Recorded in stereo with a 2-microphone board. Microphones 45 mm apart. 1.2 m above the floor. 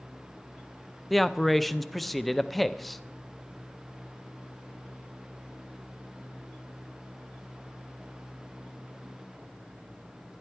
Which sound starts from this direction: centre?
A man speaking, at 1.1 s.